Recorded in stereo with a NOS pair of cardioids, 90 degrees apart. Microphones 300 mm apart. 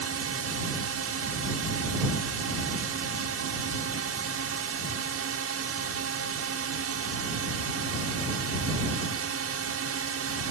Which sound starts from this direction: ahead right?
A drone, at 0.0 s.